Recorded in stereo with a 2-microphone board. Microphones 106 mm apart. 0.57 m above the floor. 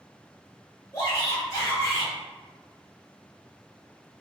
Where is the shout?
35° left (ahead or behind), 1.8 m.